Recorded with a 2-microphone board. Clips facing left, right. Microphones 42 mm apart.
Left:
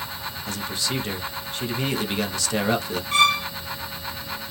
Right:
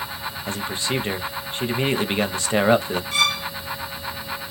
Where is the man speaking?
30° right (ahead or behind), 0.6 m.